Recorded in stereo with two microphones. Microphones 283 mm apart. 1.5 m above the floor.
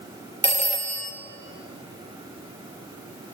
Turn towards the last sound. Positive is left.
turn(degrees=-25)  # may be behind; listen again after turning